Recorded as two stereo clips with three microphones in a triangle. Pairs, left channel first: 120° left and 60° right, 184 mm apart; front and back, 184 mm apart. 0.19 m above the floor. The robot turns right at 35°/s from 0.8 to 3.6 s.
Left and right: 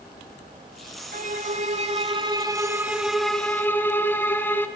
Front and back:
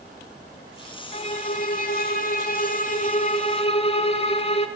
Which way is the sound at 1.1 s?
45° right.